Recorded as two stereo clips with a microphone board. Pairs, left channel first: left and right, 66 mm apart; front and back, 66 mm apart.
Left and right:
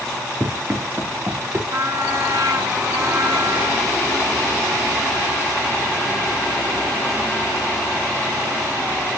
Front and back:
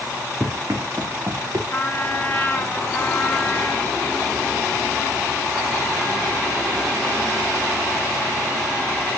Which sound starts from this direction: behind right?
Running footsteps, at 0.4 s.